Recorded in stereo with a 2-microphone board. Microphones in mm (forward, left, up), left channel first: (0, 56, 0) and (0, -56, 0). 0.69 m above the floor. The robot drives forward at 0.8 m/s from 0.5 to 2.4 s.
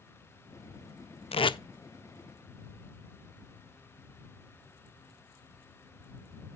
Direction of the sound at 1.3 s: 60° left (ahead or behind).